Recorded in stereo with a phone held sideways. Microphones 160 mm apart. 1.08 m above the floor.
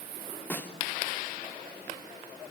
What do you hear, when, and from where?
0.5 s a snare drum: 10° left (ahead or behind), 3 m